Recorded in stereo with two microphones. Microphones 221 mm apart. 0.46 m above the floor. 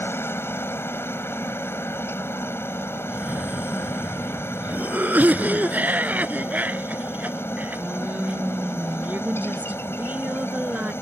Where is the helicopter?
10° left (ahead or behind).